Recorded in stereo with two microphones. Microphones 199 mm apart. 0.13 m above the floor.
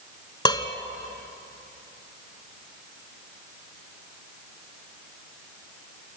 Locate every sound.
0.5 s dishes clattering: 20° left (ahead or behind), 1.1 m